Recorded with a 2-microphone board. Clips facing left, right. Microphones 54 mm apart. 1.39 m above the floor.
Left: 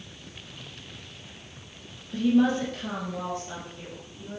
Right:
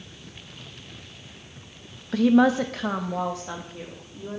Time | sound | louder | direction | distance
2.1 | a woman speaking | right 4 dB | 85° right | 0.8 m